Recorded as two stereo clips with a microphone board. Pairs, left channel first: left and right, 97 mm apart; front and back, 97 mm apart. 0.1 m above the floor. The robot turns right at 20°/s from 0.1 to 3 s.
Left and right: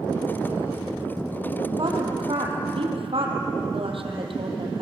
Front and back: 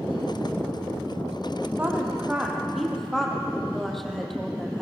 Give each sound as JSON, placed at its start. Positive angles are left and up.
{"t": 1.8, "sound": "a woman speaking", "azimuth_deg": -110, "distance_m": 4.0}